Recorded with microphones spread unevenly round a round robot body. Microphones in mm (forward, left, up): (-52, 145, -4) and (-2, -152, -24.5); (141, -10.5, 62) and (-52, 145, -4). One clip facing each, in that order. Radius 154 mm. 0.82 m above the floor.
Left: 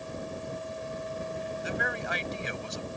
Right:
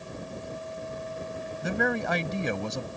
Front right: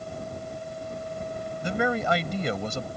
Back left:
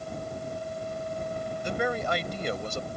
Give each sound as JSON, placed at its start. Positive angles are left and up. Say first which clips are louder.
{"t": 1.6, "sound": "a man speaking", "louder": "right 10 dB, front right 4 dB", "azimuth_deg": -35}